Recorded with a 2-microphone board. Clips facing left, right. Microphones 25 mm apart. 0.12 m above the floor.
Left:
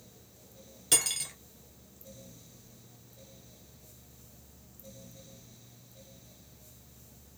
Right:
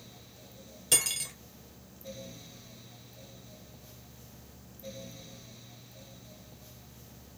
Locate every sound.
0.9 s cutlery clinking: 10° left (ahead or behind), 0.8 m